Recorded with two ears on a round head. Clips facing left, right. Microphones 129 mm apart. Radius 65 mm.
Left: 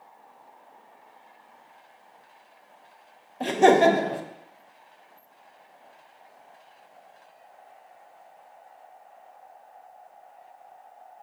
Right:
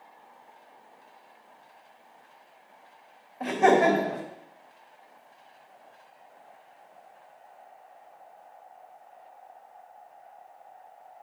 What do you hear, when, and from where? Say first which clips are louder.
3.4 s laughter: left 3 dB; 35° left (ahead or behind), 0.5 m